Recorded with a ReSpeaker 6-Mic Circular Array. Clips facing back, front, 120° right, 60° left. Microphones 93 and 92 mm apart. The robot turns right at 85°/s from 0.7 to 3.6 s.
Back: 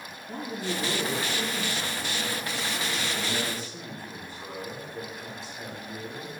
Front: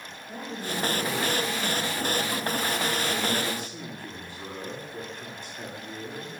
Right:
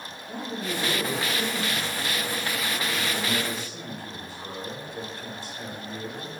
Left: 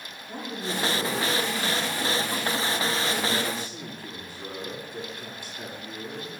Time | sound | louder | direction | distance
0.3 | a man speaking | back 2 dB, right 1 dB | 140° left | 4.5 m